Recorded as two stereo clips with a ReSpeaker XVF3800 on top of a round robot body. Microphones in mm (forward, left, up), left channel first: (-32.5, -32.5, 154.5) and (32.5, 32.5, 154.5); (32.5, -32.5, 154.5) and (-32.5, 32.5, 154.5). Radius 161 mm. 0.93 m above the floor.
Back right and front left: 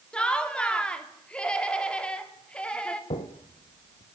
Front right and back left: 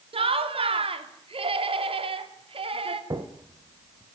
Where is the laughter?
145° left, 3 m.